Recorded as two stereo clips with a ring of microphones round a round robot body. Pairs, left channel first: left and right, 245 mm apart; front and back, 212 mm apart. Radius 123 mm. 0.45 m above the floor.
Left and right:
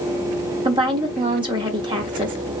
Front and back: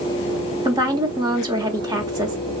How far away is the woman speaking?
About 0.8 m.